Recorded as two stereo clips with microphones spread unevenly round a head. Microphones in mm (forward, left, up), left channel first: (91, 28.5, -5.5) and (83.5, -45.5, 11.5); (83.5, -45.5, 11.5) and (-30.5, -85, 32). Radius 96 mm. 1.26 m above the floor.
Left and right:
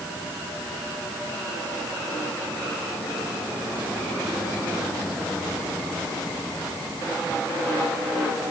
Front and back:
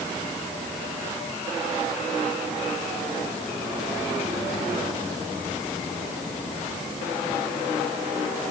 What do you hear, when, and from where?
Only background noise.